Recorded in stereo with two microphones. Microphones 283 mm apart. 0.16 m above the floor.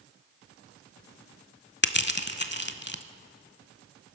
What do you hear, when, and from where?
1.8 s crushing: 40° left (ahead or behind), 0.7 m